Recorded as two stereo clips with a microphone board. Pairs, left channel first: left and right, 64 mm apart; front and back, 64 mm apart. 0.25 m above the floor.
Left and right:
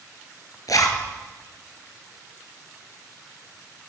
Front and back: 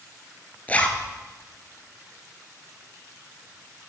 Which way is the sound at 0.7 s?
65° left.